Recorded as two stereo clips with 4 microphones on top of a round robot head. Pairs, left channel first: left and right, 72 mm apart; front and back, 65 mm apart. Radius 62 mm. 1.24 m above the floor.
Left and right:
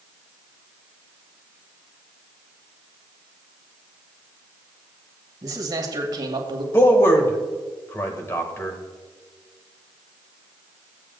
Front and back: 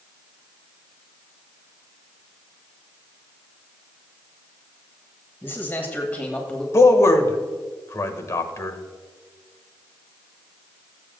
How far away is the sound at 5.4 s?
About 1.8 m.